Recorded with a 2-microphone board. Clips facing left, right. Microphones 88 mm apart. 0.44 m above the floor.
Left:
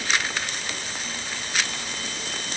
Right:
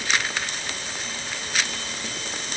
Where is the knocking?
I don't hear knocking.